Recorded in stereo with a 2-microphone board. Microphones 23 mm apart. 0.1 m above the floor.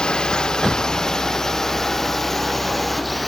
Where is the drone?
35° left (ahead or behind); by 3.3 s centre (ahead or behind).